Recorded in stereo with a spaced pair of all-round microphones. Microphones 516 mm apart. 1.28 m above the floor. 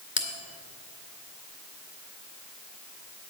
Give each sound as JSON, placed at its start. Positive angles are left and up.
{"t": 0.2, "sound": "a bell", "side_deg": 20, "distance_m": 1.5}